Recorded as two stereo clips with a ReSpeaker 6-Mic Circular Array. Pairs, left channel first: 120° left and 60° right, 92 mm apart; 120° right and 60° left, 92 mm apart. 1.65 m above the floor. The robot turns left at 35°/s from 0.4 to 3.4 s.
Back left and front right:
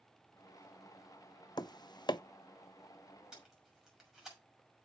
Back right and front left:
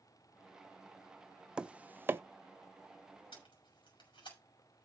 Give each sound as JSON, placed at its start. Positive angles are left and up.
{"t": 1.6, "sound": "tapping", "azimuth_deg": 140, "distance_m": 0.5}
{"t": 3.3, "sound": "tape being pulled", "azimuth_deg": -140, "distance_m": 6.0}